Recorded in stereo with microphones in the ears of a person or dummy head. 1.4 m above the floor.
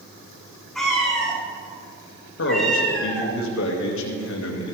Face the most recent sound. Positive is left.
turn(degrees=75)  # may be behind; listen again after turning